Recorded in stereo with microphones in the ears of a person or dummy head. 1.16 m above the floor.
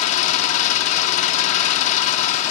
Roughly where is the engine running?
Left.